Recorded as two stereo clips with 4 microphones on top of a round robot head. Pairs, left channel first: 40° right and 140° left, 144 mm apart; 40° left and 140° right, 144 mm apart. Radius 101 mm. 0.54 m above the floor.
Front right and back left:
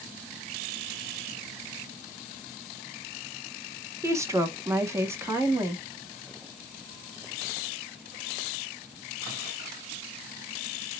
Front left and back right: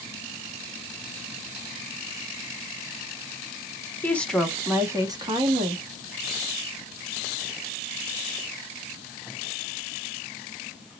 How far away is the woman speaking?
About 0.9 m.